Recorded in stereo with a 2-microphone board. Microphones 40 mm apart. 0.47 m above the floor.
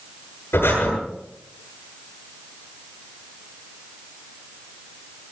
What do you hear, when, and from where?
0.5 s breathing: 75° left (ahead or behind), 9 m